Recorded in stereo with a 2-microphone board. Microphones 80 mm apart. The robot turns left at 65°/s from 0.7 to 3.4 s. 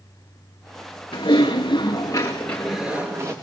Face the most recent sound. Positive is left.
turn(degrees=-45)